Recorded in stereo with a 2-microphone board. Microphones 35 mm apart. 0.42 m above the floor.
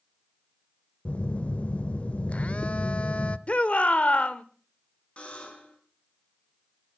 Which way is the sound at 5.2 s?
35° left (ahead or behind).